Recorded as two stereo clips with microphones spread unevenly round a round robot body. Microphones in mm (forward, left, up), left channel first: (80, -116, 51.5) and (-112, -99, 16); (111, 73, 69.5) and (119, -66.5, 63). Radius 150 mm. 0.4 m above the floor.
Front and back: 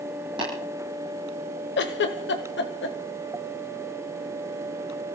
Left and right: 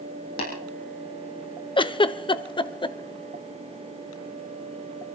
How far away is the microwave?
I don't hear a microwave.